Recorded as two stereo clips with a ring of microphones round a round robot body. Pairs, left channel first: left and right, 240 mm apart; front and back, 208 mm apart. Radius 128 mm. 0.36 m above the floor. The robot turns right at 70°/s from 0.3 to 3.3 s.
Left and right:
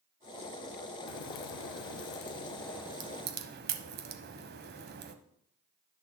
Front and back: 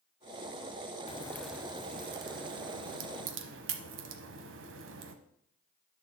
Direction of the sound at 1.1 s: 60° left.